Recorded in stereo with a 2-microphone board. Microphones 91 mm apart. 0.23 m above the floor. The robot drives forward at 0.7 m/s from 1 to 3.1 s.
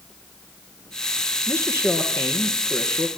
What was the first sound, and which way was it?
A man speaking, 25° left (ahead or behind).